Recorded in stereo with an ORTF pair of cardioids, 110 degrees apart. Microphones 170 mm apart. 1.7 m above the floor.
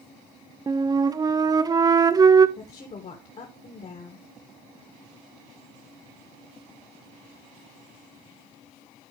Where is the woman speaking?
45° left, 2 m.